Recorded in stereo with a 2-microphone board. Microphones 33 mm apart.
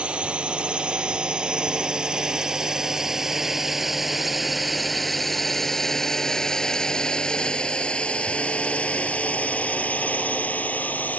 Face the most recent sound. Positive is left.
turn(degrees=55)  # may be behind; listen again after turning